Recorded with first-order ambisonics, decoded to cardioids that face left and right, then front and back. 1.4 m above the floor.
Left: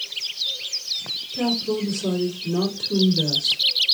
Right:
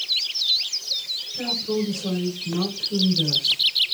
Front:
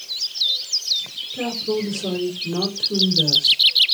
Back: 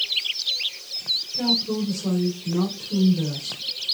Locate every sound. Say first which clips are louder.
1.3 s a woman speaking: left 2 dB, front 4 dB; 45° left, 3 m